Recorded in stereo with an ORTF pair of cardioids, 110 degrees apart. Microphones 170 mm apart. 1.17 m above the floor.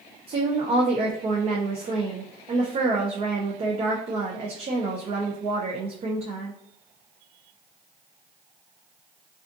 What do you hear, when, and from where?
0.3 s a woman speaking: 35° right, 0.5 m